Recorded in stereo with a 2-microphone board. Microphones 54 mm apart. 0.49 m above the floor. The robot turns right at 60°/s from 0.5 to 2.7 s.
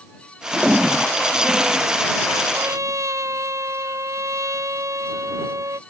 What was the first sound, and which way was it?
A toilet flushing, 15° right.